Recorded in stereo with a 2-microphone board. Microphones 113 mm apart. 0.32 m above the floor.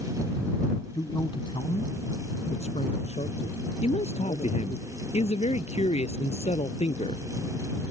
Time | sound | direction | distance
0.9 | a man speaking | 35° left (ahead or behind) | ?
3.8 | a man speaking | 70° left (ahead or behind) | ?